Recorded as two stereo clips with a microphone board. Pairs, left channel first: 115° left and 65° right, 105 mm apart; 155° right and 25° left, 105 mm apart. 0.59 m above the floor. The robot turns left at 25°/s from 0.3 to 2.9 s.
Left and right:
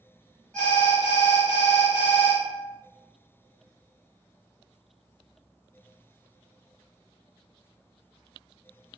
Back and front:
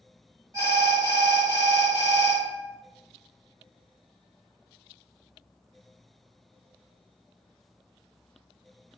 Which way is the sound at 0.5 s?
40° left.